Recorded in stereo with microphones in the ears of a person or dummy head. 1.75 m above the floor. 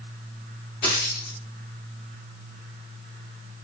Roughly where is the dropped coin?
Left.